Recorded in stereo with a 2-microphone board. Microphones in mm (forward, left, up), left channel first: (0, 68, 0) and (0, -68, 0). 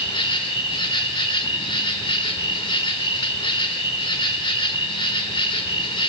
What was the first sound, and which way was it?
An insect, 40° left (ahead or behind).